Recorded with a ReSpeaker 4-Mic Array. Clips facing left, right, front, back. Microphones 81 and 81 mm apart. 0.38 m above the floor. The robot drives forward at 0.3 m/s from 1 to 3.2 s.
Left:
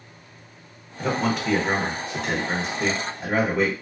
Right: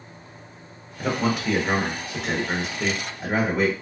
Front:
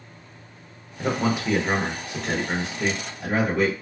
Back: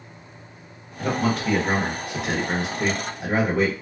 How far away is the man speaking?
About 0.8 m.